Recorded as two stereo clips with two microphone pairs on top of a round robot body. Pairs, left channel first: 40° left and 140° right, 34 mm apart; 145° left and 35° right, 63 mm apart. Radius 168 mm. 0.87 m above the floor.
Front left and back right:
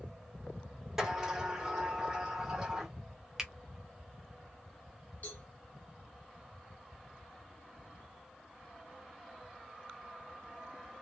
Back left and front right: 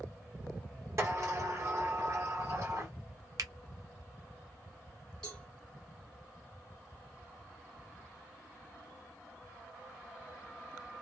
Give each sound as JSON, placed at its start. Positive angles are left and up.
{"t": 1.0, "sound": "a sliding door", "azimuth_deg": -60, "distance_m": 1.3}
{"t": 3.4, "sound": "a finger snap", "azimuth_deg": -60, "distance_m": 0.5}
{"t": 5.2, "sound": "a cowbell", "azimuth_deg": 75, "distance_m": 0.7}